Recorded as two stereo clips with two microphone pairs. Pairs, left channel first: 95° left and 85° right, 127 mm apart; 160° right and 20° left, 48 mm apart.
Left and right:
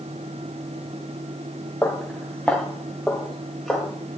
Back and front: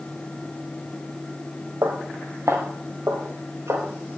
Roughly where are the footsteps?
Ahead.